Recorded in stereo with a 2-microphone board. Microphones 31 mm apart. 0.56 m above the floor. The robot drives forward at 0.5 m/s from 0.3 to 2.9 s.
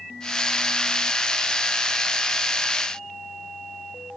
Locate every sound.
Only background noise.